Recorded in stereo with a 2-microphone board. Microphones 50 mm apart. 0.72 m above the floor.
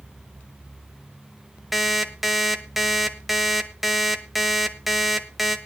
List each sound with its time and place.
1.7 s an alarm clock: 5° right (ahead or behind), 1.2 m